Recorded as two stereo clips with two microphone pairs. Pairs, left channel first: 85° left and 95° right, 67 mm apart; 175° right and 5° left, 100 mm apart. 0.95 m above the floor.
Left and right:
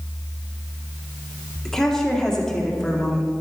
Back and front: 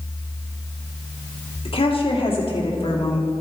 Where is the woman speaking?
165° left, 2 m.